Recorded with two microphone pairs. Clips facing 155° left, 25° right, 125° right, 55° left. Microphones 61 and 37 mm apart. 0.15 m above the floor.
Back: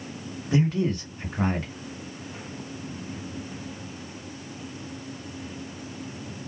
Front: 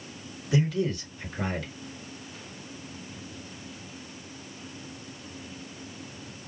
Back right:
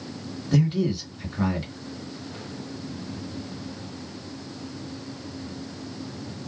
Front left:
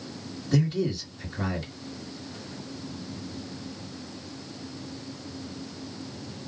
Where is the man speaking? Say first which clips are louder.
Back 2 dB, back right 3 dB; 165° left, 2 m.